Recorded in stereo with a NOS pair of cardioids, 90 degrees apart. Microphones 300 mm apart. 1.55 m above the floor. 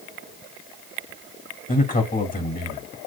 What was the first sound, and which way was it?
A man speaking, 30° left.